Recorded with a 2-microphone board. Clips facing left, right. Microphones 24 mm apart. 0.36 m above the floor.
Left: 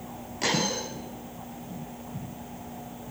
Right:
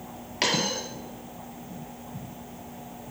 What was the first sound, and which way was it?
A dropped coin, 50° right (ahead or behind).